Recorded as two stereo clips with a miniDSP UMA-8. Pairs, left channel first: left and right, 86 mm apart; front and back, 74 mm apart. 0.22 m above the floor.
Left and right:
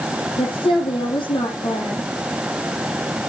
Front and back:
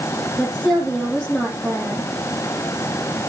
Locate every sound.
0.4 s a woman speaking: 80° left, 8 m